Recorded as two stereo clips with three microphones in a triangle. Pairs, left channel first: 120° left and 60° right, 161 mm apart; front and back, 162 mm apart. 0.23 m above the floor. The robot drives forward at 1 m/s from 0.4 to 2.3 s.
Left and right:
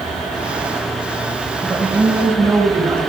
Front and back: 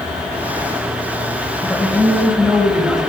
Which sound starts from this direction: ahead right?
A woman speaking, at 1.6 s.